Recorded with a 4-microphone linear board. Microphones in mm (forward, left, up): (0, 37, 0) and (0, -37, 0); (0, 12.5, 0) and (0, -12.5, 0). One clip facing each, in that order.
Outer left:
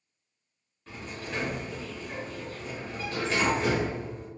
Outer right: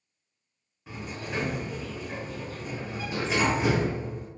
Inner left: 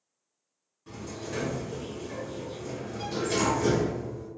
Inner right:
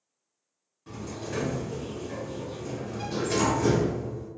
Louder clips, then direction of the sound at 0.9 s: Outer right 2 dB, inner right 1 dB; 10° right (ahead or behind).